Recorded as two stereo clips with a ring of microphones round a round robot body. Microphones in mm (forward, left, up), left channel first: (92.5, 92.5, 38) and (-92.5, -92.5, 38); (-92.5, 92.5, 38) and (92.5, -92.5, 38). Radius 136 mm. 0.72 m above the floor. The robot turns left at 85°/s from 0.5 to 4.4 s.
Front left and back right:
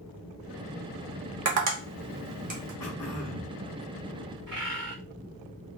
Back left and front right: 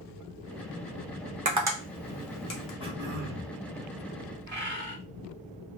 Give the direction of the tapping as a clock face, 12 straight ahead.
3 o'clock.